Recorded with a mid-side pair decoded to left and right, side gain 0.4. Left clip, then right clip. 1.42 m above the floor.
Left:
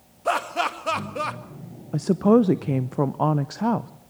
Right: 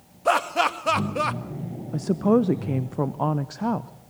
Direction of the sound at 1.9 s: 25° left.